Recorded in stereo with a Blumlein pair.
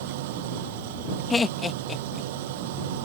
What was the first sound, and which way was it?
An engine running, 50° right.